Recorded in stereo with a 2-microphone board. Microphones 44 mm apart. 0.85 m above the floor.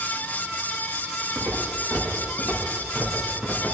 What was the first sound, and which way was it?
Footsteps, 35° right (ahead or behind).